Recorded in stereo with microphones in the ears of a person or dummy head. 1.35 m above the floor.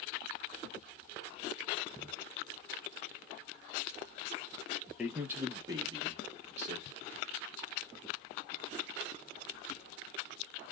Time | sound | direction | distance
5.0 | a man speaking | 5° left (ahead or behind) | 0.7 m